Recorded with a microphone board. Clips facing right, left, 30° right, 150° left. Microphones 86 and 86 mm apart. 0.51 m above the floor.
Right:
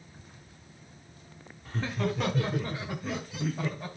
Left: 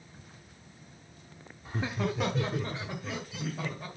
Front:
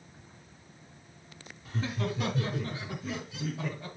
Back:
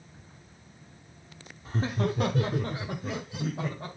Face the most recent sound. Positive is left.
turn(degrees=-170)